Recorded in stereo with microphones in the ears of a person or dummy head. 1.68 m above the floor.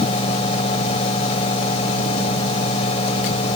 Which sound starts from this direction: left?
A fan, at 0.0 s.